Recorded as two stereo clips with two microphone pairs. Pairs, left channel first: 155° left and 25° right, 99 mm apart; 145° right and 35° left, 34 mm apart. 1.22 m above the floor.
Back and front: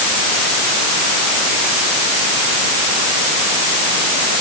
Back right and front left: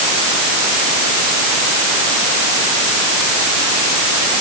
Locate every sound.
Only background noise.